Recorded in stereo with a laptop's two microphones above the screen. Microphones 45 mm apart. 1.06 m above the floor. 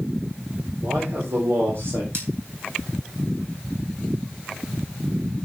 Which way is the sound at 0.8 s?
80° right.